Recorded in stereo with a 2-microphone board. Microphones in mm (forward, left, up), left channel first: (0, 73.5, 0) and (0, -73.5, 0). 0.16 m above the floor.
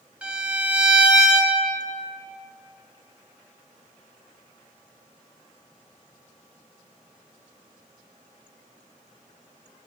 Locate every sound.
0.2 s a violin: 10° right (ahead or behind), 1.4 m